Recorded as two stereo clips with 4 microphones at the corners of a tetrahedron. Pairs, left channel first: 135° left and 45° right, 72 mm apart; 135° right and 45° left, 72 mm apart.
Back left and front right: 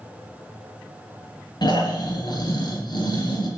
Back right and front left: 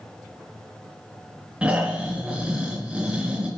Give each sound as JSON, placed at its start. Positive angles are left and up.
{"t": 1.6, "sound": "snoring", "azimuth_deg": 125, "distance_m": 3.5}